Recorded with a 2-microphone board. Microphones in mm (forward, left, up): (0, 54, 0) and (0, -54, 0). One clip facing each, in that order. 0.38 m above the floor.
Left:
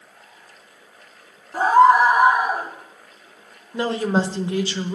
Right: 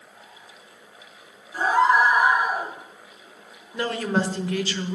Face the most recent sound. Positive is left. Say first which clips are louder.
# left 3 dB
turn(degrees=25)  # may be behind; listen again after turning